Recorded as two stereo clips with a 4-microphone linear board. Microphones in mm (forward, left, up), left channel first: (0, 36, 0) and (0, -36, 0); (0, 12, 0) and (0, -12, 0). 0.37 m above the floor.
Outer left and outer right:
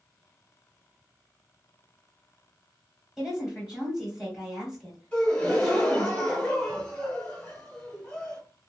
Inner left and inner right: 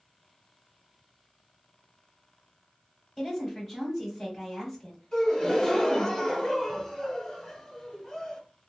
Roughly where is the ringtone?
I don't hear a ringtone.